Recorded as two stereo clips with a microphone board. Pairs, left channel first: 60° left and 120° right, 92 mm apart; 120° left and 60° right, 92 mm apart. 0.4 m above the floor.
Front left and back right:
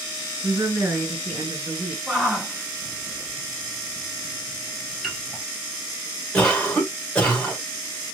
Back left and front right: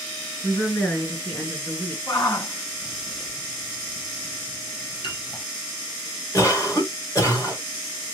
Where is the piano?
150° left, 1.5 m.